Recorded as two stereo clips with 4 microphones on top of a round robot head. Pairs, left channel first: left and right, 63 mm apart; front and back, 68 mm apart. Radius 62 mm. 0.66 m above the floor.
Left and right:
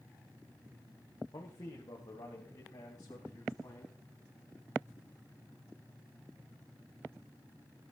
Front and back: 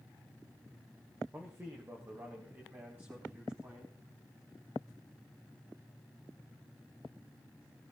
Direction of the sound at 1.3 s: 125° left.